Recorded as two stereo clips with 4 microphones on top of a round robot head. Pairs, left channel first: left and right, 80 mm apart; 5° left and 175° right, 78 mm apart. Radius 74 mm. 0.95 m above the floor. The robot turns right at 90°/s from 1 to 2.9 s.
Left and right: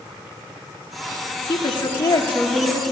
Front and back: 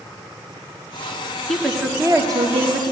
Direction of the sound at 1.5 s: 80° left.